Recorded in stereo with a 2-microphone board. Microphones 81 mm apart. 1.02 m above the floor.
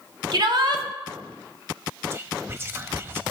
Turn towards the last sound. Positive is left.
turn(degrees=-30)  # may be behind; listen again after turning